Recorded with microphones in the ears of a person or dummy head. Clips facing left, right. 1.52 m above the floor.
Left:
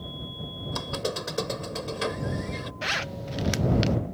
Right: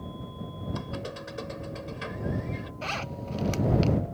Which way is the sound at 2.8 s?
20° left (ahead or behind).